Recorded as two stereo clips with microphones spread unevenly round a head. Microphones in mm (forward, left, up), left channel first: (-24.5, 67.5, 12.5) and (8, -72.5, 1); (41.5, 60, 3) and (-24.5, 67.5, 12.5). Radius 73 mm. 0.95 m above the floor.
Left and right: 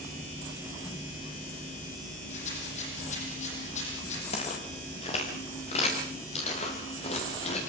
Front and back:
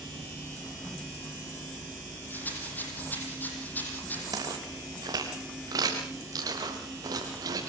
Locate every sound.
2.3 s a rattle: 55° left, 8.5 m
4.3 s footsteps: 150° left, 5 m